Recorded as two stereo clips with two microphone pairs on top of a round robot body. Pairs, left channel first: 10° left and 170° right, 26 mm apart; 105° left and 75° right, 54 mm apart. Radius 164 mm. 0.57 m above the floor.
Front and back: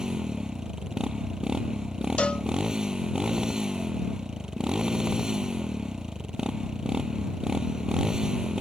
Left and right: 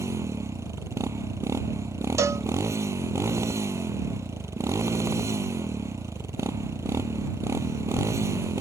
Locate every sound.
0.0 s a motorcycle: 110° right
2.2 s a cowbell: 35° right